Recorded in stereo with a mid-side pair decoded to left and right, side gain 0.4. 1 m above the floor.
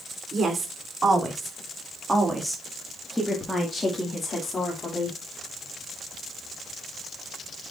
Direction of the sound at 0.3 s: 45° right.